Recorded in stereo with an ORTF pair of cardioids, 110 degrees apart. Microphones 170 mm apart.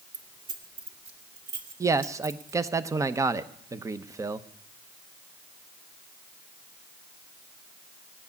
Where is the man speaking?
20° right, 0.8 m.